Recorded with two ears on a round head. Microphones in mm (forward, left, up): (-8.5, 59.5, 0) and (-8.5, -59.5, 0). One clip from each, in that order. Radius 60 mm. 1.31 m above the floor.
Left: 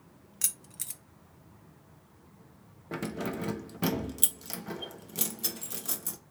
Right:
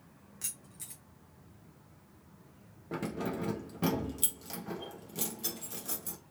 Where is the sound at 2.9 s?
20° left (ahead or behind), 0.6 m.